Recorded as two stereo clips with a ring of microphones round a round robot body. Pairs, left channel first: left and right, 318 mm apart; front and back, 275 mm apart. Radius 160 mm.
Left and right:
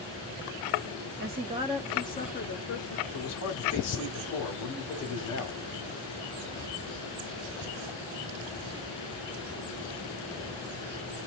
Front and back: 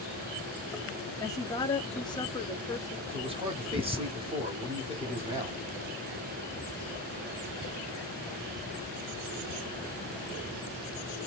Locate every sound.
1.2 s a woman speaking: 70° right, 0.8 m; by 3.0 s 75° left, 1.0 m
3.1 s a man speaking: 115° left, 1.5 m